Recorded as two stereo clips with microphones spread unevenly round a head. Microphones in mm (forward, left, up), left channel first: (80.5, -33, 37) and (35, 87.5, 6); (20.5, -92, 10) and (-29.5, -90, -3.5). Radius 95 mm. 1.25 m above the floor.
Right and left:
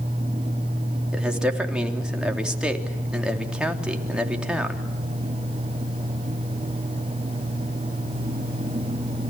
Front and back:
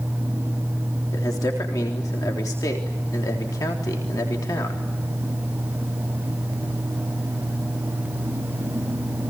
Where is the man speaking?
30° left, 3.5 m.